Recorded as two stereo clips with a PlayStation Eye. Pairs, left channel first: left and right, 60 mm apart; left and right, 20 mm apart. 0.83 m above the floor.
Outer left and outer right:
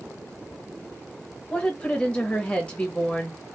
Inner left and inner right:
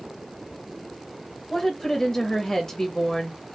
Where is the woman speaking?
20° left (ahead or behind), 0.8 m.